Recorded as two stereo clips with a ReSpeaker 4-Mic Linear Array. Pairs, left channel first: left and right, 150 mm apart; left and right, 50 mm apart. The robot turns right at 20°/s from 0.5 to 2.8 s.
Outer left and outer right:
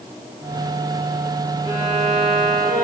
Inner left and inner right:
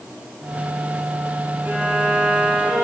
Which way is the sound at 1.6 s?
25° right (ahead or behind).